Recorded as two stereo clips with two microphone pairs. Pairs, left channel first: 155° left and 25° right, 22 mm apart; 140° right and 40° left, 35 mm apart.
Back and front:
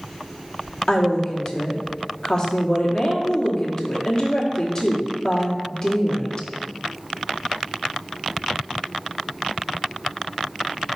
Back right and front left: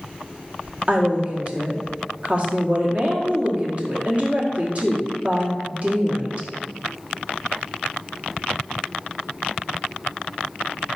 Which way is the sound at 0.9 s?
95° left.